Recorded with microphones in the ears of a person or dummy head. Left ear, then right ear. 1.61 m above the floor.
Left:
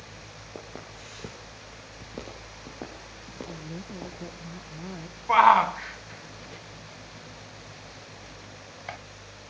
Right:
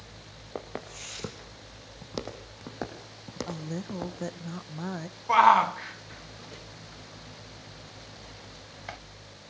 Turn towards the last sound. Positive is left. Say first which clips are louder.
# left 1 dB
turn(degrees=10)  # may be behind; listen again after turning